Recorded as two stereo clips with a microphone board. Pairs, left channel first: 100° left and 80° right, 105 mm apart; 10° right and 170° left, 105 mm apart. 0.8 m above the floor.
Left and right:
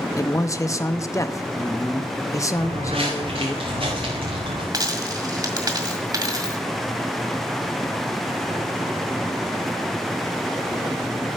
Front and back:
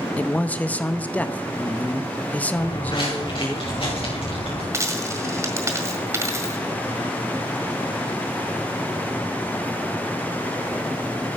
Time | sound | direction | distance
0.2 | a man speaking | 60° left | 0.6 m
2.5 | footsteps | 55° right | 5.5 m
4.7 | a dropped coin | 130° right | 1.6 m